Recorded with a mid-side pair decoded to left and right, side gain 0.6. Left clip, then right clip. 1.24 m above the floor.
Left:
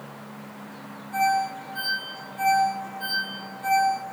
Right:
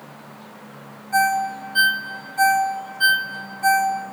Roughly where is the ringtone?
Ahead right.